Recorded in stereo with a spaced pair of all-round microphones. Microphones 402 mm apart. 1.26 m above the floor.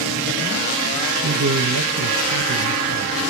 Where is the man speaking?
50° right (ahead or behind), 1.1 m.